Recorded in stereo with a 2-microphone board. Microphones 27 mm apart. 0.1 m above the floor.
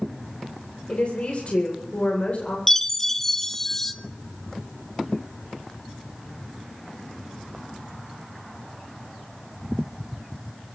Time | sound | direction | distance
0.9 | a woman speaking | 55° left (ahead or behind) | 8 m
2.7 | a chime | 10° left (ahead or behind) | 0.7 m